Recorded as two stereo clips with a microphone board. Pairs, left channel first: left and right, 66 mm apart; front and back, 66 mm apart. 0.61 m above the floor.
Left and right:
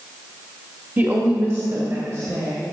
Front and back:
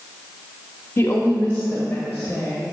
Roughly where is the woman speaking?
Ahead right.